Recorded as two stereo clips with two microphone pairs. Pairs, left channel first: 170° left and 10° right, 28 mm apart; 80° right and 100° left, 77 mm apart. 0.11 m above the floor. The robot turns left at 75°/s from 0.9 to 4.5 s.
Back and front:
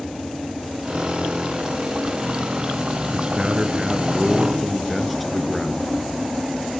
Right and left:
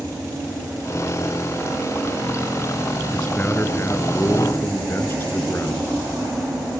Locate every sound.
3.1 s a man speaking: straight ahead, 1.9 m; by 5.9 s 105° right, 1.9 m